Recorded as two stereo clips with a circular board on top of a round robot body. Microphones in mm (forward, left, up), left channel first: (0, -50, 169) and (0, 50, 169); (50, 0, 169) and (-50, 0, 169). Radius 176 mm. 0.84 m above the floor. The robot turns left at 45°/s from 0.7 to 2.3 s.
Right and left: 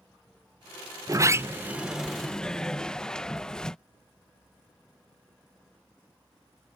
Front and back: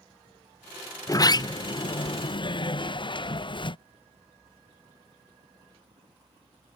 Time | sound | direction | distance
1.1 | a sliding door | 45° left | ?